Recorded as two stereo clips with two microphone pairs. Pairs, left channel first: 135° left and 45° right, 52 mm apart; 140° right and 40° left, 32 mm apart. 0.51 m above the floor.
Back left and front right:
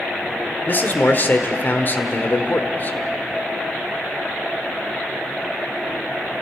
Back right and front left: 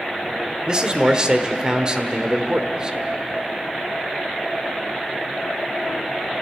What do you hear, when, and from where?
0.7 s a man speaking: 100° left, 1.6 m